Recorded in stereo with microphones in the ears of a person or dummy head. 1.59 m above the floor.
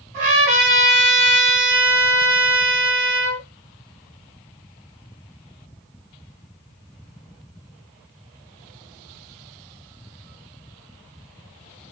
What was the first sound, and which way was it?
A trumpet, 40° right (ahead or behind).